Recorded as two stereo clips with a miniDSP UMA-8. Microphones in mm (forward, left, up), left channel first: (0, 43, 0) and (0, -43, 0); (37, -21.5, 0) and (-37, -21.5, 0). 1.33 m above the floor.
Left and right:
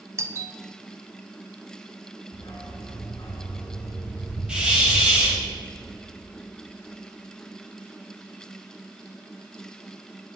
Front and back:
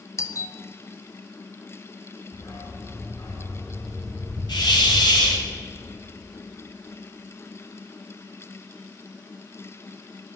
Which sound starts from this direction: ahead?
A hiss, at 4.5 s.